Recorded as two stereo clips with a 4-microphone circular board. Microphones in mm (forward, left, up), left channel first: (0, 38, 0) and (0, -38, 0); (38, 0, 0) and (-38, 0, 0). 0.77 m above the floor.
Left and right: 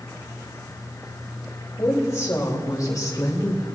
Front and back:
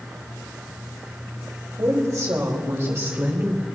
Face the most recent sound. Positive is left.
turn(degrees=115)